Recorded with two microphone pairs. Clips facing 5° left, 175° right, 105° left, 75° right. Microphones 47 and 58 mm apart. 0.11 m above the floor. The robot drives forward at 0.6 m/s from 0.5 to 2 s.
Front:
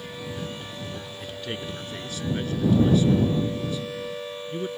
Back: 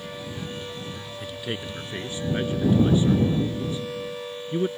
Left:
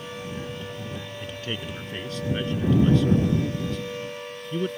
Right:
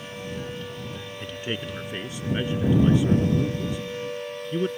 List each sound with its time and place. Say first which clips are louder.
1.2 s a man speaking: back 2 dB, right 3 dB; 90° right; by 4.7 s 135° right